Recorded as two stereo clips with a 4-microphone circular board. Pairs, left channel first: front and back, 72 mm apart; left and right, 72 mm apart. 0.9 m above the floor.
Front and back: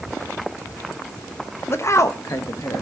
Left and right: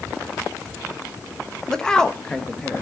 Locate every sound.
1.7 s a woman speaking: 15° left, 1.0 m; by 2.8 s 20° left, 1.7 m